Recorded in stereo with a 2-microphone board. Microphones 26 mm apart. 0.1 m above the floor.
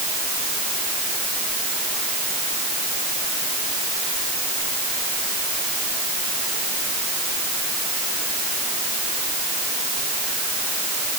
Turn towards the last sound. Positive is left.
No sound to turn to.